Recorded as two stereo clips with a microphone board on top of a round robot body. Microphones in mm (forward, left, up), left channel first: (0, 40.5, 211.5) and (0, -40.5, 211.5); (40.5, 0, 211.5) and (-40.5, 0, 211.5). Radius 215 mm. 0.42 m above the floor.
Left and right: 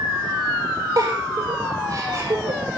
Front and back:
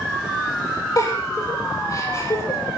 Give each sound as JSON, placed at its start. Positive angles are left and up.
{"t": 1.0, "sound": "a giggle", "azimuth_deg": -45, "distance_m": 8.5}